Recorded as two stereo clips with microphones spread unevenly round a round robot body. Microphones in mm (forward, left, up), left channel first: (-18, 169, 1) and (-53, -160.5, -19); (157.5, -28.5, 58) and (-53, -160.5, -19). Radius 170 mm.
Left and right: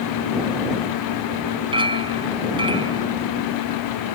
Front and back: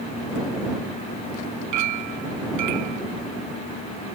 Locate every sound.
1.7 s a clink: 170° right